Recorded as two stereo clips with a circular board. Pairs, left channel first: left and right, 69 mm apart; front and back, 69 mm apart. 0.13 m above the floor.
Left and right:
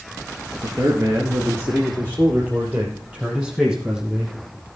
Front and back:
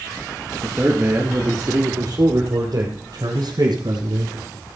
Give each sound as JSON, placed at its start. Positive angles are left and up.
{"t": 0.6, "sound": "a man speaking", "azimuth_deg": -105, "distance_m": 2.5}